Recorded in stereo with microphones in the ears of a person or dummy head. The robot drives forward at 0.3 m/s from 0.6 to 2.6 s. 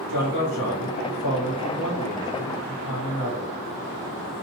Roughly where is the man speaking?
Left.